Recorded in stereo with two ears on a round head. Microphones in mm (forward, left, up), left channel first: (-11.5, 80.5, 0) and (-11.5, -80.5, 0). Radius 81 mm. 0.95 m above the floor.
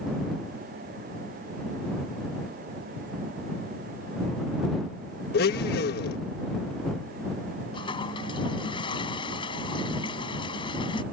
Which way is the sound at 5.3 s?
60° left (ahead or behind).